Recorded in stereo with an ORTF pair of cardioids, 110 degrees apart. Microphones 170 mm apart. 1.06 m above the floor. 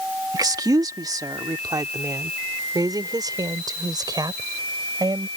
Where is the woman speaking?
20° right; by 5.3 s 25° right.